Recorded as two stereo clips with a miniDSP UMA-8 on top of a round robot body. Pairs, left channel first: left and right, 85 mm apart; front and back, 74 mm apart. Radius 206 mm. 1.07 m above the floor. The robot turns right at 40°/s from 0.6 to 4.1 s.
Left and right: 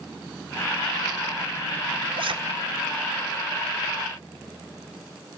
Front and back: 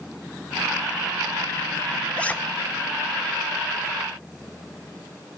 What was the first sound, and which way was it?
A zipper, 75° right.